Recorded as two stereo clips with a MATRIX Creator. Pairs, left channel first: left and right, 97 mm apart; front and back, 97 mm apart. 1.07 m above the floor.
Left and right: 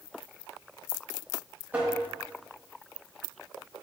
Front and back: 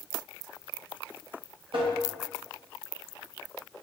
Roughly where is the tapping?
Behind.